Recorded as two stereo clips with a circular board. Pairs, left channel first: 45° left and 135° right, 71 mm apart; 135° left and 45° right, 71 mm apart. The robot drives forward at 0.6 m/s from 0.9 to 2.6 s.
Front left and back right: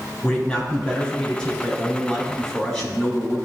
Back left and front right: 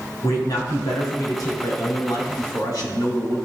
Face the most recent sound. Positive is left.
turn(degrees=130)